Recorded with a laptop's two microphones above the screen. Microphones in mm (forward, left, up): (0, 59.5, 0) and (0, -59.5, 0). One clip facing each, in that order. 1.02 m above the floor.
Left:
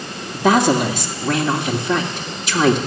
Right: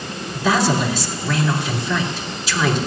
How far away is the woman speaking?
About 1.8 m.